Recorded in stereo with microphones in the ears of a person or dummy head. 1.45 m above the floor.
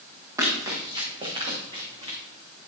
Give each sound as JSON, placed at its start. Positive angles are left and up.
{"t": 0.4, "sound": "running footsteps", "side_deg": -20, "distance_m": 3.5}